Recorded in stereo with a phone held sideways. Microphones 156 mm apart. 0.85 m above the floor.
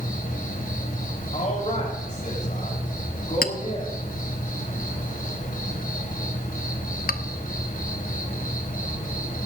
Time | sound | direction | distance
0.0 | an insect | 60° left (ahead or behind) | 1.8 m
1.3 | a man speaking | 55° left (ahead or behind) | 3.5 m
3.4 | a clink | 70° left (ahead or behind) | 0.7 m